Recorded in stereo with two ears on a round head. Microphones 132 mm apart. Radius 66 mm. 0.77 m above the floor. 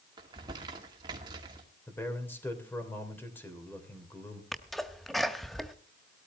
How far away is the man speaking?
About 3 m.